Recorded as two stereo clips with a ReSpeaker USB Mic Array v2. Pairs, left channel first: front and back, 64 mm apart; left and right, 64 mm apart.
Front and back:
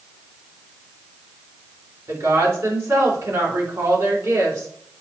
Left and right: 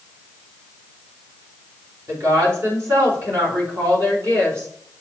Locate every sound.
2.1 s a woman speaking: 130° right, 4.5 m